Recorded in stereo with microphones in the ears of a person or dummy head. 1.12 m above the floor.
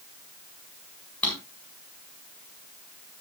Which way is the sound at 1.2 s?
10° left (ahead or behind).